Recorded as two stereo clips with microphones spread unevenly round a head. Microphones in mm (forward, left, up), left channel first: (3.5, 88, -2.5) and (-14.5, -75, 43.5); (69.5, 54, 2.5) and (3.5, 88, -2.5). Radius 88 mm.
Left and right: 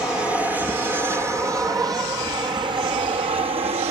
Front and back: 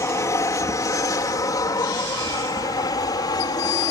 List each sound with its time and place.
0.0 s an aircraft: straight ahead; by 3.9 s 35° right